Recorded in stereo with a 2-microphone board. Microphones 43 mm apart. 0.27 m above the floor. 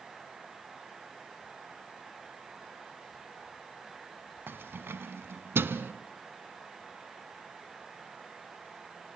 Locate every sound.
4.5 s keys jangling: 55° right (ahead or behind), 1.4 m